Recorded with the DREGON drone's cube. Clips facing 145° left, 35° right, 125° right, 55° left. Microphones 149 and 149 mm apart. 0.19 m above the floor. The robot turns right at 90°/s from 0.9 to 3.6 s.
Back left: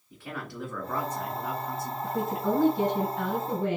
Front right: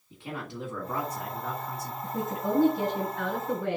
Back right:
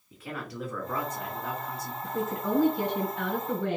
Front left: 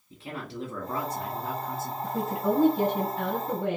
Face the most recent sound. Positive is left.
turn(degrees=120)